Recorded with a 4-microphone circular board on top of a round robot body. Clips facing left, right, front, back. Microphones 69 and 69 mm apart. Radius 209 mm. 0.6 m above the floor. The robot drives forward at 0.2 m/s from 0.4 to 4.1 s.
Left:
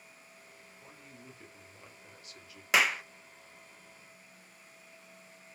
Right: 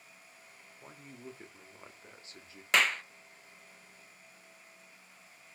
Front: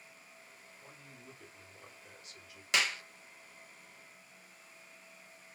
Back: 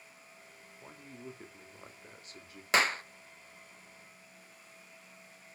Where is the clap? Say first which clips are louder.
Left 1 dB, back 5 dB; 170° left, 0.6 m; by 3.0 s 175° left, 0.6 m.